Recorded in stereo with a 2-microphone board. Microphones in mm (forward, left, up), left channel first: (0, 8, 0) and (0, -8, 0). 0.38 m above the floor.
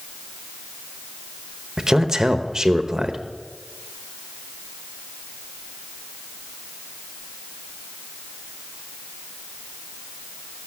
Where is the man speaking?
35° right (ahead or behind), 1.0 m.